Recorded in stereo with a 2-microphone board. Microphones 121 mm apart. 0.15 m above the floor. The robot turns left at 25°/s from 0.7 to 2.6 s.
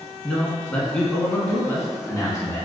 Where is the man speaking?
165° left, 1.1 m; by 2.6 s 120° left, 1.1 m.